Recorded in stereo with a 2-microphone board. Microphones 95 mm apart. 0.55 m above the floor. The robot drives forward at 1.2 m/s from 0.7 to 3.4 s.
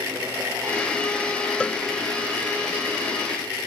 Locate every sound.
1.6 s a cowbell: 10° left (ahead or behind)